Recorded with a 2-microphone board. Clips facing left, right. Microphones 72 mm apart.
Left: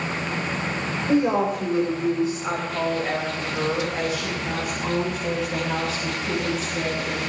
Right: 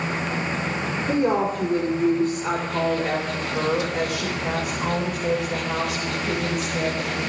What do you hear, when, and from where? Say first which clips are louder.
1.1 s a woman speaking: left 1 dB; 40° right (ahead or behind), 3.5 m; by 7.2 s 80° right, 5.5 m